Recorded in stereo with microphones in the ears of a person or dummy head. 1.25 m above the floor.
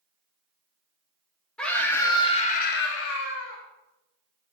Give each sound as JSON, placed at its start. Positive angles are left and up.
{"t": 1.6, "sound": "a scream", "side_deg": 10, "distance_m": 1.6}